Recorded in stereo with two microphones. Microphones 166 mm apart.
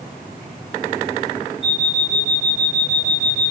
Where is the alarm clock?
Centre (ahead or behind), 8 m.